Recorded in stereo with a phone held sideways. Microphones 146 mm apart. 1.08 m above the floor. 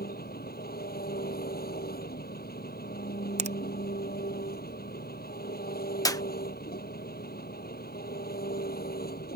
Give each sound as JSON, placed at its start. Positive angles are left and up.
{"t": 0.0, "sound": "an engine running", "side_deg": 80}
{"t": 3.4, "sound": "a finger snap", "side_deg": -45}
{"t": 6.0, "sound": "a clap", "side_deg": 20}